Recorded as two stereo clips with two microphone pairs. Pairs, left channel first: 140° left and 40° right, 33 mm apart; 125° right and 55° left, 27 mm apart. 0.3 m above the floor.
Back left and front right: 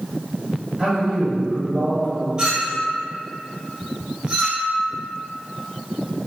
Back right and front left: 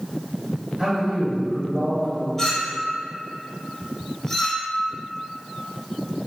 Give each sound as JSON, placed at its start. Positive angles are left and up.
{"t": 0.8, "sound": "a man speaking", "azimuth_deg": 10, "distance_m": 1.2}
{"t": 2.4, "sound": "a clink", "azimuth_deg": -75, "distance_m": 0.6}